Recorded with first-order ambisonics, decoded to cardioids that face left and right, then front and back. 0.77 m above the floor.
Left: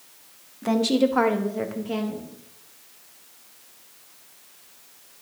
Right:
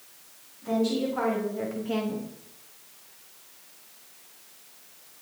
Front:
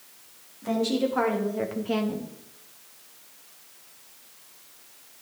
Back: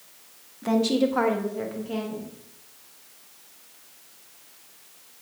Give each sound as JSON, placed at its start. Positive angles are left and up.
{"t": 0.6, "sound": "a woman speaking", "azimuth_deg": 115, "distance_m": 1.5}